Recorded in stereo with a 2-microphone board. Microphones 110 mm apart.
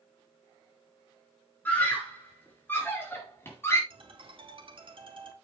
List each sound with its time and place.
1.6 s a scream: 15° left (ahead or behind), 5 m; by 3.8 s 25° left (ahead or behind), 4 m
3.9 s a ringtone: 50° right (ahead or behind), 2.5 m